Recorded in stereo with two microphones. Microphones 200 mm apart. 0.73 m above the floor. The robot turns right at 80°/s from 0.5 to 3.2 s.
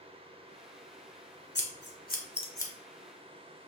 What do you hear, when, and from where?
1.6 s scissors: 65° left (ahead or behind), 1.0 m; by 2.7 s 10° left (ahead or behind), 1.0 m